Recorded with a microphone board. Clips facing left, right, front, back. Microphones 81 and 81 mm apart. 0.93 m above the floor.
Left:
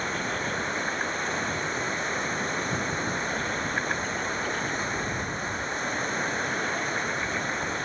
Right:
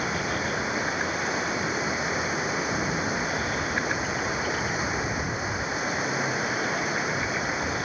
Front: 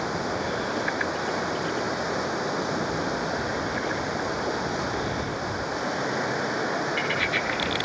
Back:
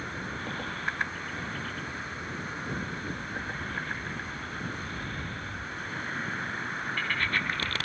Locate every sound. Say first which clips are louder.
0.0 s running water: right 2 dB, front 9 dB; 5° right